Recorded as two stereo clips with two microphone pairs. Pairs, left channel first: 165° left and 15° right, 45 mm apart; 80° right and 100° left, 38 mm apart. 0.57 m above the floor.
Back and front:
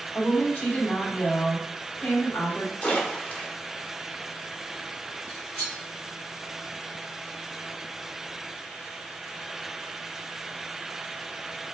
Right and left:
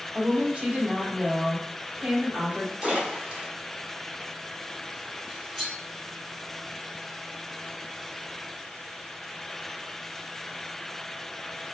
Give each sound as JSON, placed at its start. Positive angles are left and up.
{"t": 0.1, "sound": "a woman speaking", "azimuth_deg": 155, "distance_m": 1.1}
{"t": 2.8, "sound": "a splash", "azimuth_deg": 135, "distance_m": 0.9}
{"t": 5.3, "sound": "cutlery clinking", "azimuth_deg": -170, "distance_m": 1.2}